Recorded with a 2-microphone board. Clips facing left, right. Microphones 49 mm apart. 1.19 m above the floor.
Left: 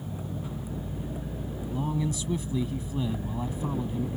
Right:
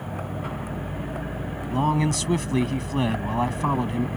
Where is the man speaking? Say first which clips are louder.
Right 8 dB; 75° right (ahead or behind).